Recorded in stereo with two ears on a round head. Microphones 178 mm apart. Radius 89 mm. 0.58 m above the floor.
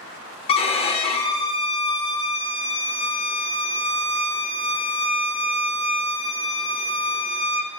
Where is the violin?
30° left (ahead or behind), 0.9 m.